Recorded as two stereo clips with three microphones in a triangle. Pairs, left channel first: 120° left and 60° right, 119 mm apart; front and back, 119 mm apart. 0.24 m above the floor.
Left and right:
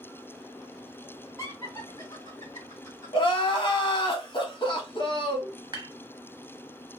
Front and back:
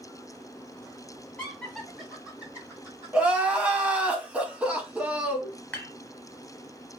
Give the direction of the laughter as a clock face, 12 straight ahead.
10 o'clock.